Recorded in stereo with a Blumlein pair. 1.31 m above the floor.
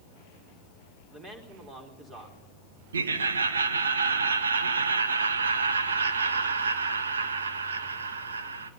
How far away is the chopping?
I don't hear chopping.